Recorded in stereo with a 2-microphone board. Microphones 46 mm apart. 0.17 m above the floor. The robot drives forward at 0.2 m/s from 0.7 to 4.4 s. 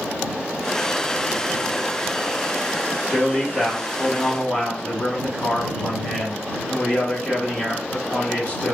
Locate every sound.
3.1 s a man speaking: 25° left (ahead or behind), 1.5 m